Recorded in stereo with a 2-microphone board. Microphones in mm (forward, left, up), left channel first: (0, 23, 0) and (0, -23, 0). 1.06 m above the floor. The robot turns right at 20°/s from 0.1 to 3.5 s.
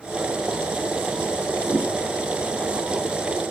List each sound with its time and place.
1.6 s a whoosh: 40° right (ahead or behind), 4.5 m; by 1.9 s 45° right (ahead or behind), 4.5 m